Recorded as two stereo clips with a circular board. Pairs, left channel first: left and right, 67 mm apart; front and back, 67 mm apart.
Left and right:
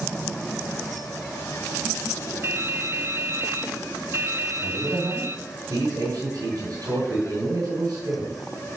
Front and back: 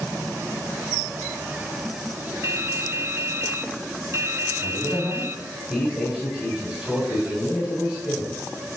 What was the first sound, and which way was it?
Dripping, 140° right.